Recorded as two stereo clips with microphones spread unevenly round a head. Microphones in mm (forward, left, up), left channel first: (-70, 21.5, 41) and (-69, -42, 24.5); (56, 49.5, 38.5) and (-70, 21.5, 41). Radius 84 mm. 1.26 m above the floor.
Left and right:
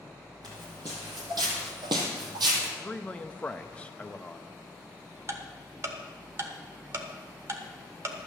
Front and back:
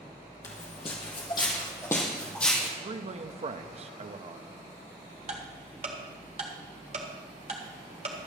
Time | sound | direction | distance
0.4 | footsteps | 25° right | 2 m
2.8 | a man speaking | 170° left | 0.9 m
5.3 | ticking | 125° right | 1.2 m